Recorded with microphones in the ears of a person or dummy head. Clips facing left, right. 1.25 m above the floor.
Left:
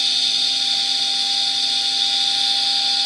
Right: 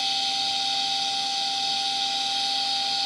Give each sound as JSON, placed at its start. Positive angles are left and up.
{"t": 0.0, "sound": "a machine running", "side_deg": 30, "distance_m": 3.0}